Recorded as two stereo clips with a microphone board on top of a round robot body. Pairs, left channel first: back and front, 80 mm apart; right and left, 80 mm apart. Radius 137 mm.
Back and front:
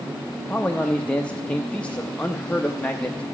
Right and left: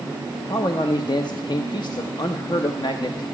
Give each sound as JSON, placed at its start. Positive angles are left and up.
{"t": 0.5, "sound": "a man speaking", "azimuth_deg": -105, "distance_m": 0.7}